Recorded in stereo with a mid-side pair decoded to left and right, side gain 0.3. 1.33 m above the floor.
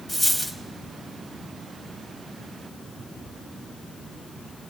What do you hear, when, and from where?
0.1 s a dropped coin: 30° left, 3 m